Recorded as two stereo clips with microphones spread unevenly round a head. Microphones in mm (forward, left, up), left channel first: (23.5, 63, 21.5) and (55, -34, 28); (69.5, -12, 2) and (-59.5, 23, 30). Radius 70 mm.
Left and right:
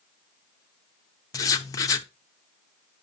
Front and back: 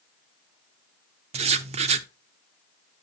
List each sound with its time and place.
1.3 s writing: 135° left, 0.6 m